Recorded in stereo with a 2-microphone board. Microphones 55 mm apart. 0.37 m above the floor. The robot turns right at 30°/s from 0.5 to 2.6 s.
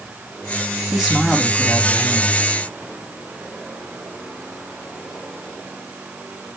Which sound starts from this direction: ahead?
A man speaking, at 0.9 s.